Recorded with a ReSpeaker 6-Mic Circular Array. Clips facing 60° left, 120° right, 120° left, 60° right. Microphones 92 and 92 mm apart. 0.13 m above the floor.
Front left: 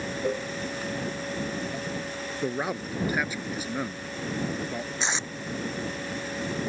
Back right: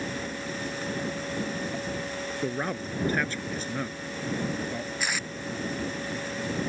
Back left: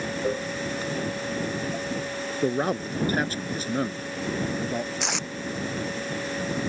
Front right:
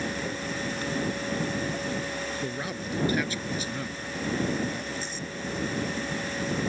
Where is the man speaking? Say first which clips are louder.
Front left 2 dB, back left 8 dB; 140° left.